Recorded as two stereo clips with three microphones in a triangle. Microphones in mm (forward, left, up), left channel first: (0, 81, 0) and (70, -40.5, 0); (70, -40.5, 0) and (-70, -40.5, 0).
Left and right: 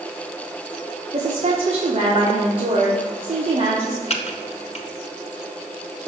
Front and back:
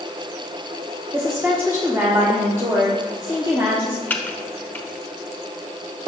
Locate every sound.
1.1 s a woman speaking: 105° right, 1.1 m
4.1 s typing on a keyboard: 75° left, 0.7 m